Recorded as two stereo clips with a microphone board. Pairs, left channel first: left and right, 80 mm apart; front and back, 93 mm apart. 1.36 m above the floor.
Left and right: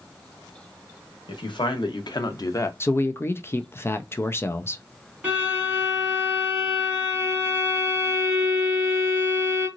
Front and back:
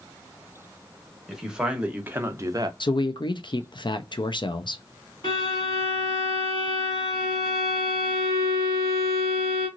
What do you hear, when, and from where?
1.3 s a man speaking: 95° left, 1.1 m; by 2.7 s 140° left, 0.5 m
2.8 s a man speaking: 30° left, 0.5 m
5.2 s a violin: 25° right, 2 m